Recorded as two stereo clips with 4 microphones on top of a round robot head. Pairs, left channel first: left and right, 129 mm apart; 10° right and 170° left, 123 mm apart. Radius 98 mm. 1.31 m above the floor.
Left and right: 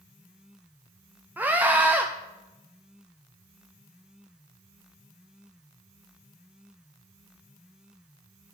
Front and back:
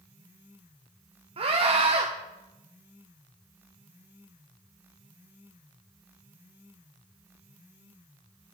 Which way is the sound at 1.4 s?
165° right.